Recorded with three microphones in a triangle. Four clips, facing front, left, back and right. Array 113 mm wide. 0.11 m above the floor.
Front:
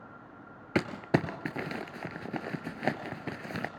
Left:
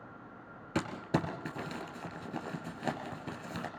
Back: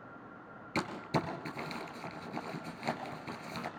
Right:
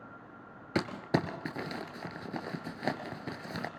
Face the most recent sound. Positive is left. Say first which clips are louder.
# right 2 dB, front 6 dB
turn(degrees=-15)